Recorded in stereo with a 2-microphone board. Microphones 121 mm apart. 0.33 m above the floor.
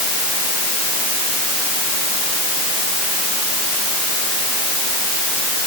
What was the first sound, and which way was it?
Only background noise.